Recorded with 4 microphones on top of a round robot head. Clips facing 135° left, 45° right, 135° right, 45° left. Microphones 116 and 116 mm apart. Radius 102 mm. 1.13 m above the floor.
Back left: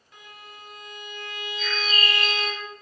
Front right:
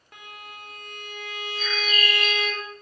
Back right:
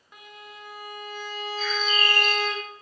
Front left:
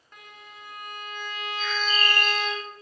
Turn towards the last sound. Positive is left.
turn(degrees=-140)